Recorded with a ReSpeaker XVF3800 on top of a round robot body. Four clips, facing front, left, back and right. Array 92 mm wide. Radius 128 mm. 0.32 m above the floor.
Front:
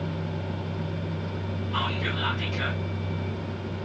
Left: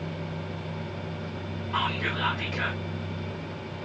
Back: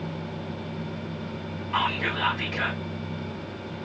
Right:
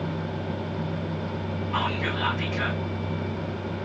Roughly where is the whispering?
Behind.